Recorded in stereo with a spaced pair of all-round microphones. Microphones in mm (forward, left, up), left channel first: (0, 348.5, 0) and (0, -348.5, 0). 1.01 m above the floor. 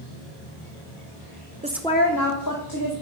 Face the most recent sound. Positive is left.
turn(degrees=30)  # may be behind; listen again after turning